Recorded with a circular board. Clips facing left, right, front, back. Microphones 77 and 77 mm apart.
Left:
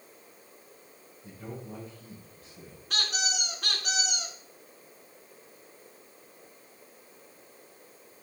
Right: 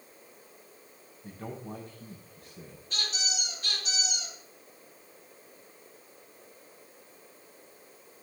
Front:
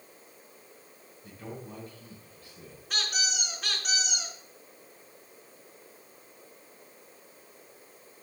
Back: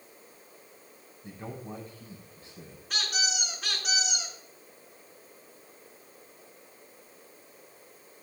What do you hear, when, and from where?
1.2 s a man speaking: 120° right, 5 m
2.9 s a squeak: 90° left, 3.5 m